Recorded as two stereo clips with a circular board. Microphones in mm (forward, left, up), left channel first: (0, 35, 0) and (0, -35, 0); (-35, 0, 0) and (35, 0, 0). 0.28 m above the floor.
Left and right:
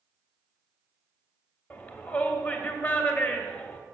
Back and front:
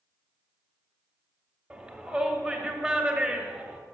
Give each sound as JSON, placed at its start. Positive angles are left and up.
{"t": 1.7, "sound": "a shout", "azimuth_deg": 55, "distance_m": 1.0}